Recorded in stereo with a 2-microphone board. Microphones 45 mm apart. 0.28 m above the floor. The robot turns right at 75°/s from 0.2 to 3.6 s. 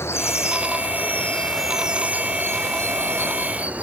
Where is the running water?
70° left; by 3.8 s 35° right.